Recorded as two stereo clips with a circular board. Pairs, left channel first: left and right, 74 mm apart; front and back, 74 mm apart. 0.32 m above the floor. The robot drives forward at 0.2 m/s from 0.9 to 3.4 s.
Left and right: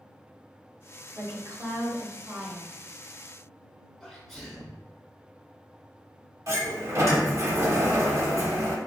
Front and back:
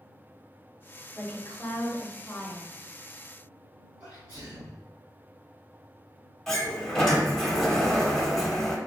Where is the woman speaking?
55° right, 1.6 m; by 2.7 s 70° right, 1.5 m.